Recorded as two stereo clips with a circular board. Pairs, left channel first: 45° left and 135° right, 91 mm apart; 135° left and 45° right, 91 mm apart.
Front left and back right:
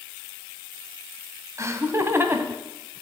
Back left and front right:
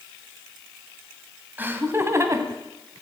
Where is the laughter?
105° right, 1.6 m; by 2.6 s 75° right, 1.8 m.